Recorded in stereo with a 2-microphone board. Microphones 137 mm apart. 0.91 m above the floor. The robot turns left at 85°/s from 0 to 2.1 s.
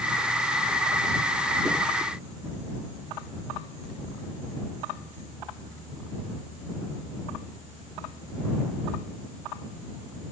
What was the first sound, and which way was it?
Only background noise.